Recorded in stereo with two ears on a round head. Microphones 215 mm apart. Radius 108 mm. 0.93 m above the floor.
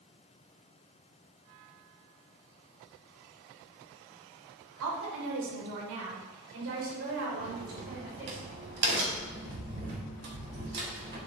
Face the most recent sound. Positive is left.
turn(degrees=-50)  # may be behind; listen again after turning